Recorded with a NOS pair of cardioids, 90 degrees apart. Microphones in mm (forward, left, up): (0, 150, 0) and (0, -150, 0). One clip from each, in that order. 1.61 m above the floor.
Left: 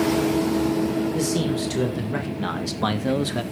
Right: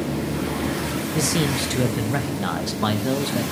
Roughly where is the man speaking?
Ahead right.